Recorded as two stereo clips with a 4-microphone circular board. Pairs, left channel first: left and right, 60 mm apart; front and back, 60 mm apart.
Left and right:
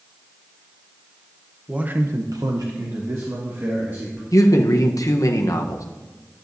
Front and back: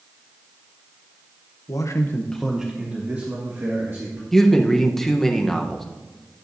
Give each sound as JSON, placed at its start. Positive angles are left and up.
{"t": 1.7, "sound": "a man speaking", "azimuth_deg": -20, "distance_m": 0.9}
{"t": 4.3, "sound": "a man speaking", "azimuth_deg": 85, "distance_m": 0.9}